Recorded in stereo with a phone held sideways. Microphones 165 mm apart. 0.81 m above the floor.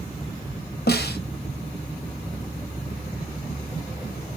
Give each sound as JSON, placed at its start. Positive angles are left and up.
{"t": 0.9, "sound": "a snare drum", "side_deg": 80, "distance_m": 0.6}